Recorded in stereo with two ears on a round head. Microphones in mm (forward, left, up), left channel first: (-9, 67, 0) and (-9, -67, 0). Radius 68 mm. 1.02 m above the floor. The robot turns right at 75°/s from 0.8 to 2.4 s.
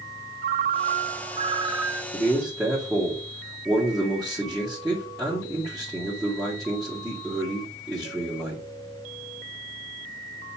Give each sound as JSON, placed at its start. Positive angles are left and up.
{"t": 0.4, "sound": "a ringtone", "azimuth_deg": -90, "distance_m": 0.6}
{"t": 2.1, "sound": "a man speaking", "side_deg": 20, "distance_m": 1.8}